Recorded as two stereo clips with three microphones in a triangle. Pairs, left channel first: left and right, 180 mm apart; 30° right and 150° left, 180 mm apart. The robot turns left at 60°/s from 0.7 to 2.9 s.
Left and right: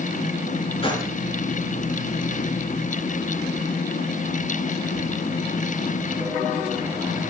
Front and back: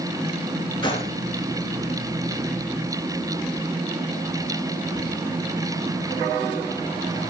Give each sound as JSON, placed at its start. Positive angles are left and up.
{"t": 0.8, "sound": "a gunshot", "azimuth_deg": 35, "distance_m": 3.5}